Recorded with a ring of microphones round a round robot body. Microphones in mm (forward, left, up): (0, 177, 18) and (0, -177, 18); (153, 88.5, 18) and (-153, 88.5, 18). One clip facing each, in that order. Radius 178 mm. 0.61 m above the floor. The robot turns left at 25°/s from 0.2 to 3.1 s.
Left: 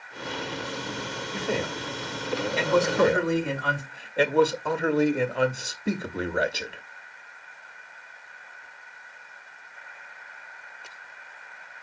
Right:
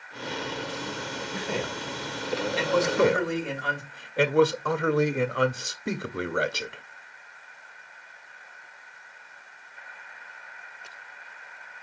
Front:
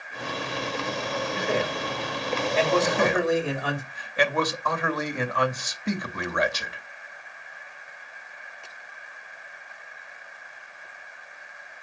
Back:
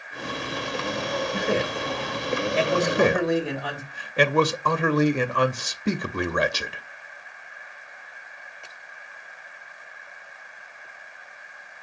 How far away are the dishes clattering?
No dishes clattering in this recording.